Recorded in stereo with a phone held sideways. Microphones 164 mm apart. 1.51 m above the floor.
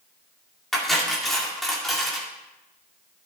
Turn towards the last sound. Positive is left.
turn(degrees=0)  # may be behind; listen again after turning